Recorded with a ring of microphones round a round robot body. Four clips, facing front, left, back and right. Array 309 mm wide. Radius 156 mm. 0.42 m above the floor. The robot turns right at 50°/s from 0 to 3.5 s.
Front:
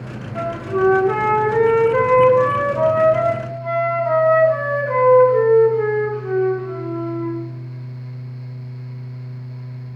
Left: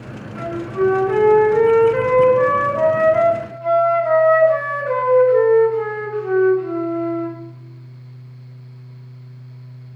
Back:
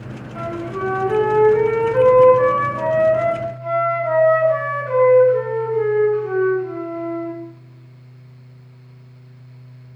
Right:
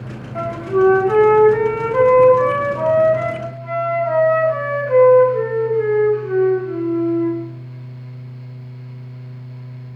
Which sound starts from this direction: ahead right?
A flute, at 0.3 s.